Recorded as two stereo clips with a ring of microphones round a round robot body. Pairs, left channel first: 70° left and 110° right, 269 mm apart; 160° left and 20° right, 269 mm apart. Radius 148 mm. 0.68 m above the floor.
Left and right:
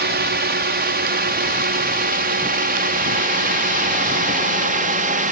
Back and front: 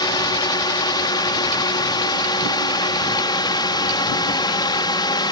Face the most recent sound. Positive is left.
turn(degrees=-140)